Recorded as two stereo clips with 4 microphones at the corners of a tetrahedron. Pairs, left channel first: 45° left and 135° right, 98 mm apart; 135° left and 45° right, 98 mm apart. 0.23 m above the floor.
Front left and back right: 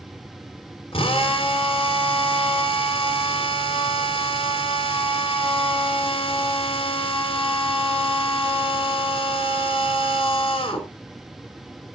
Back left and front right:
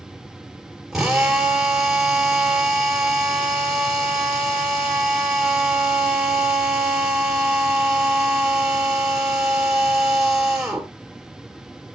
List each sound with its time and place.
0.9 s a drill: 40° left, 3 m